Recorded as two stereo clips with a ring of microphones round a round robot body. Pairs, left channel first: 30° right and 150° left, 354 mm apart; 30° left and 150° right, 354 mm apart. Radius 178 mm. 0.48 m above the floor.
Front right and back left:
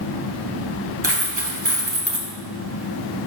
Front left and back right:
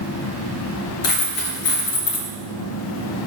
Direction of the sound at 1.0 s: 80° left.